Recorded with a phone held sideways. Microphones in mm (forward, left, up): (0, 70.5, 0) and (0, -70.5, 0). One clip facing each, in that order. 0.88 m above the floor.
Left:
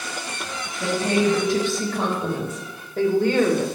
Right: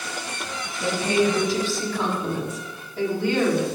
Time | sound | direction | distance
0.8 | a woman speaking | 60° left (ahead or behind) | 4 m